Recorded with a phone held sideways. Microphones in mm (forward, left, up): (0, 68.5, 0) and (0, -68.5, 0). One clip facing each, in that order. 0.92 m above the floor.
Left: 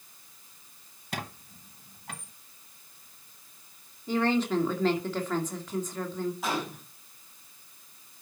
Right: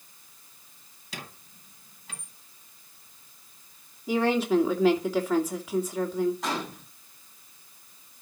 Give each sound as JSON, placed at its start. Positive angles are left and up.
{"t": 1.1, "sound": "a squeak", "side_deg": 55, "distance_m": 1.2}
{"t": 4.1, "sound": "a woman speaking", "side_deg": -10, "distance_m": 2.5}
{"t": 6.4, "sound": "a gunshot", "side_deg": 5, "distance_m": 5.5}